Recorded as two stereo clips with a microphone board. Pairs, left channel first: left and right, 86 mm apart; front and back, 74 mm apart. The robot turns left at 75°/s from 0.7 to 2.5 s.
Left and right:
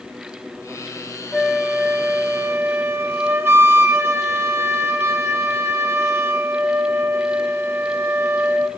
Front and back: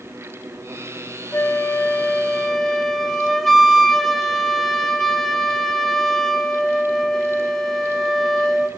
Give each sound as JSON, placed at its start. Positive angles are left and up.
{"t": 1.3, "sound": "a flute", "azimuth_deg": 5, "distance_m": 0.5}